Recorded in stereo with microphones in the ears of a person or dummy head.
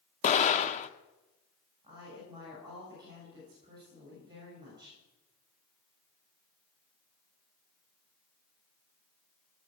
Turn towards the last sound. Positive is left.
turn(degrees=-20)  # may be behind; listen again after turning